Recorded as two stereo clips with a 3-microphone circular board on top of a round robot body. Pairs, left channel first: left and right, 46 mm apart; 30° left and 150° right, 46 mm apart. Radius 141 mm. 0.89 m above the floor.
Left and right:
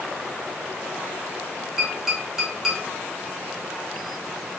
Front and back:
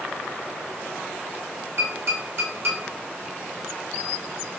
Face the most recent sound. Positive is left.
turn(degrees=-170)